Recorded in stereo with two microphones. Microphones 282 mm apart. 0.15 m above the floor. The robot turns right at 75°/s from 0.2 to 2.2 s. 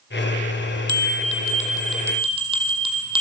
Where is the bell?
100° left, 2.5 m; by 3.2 s 160° right, 2.5 m.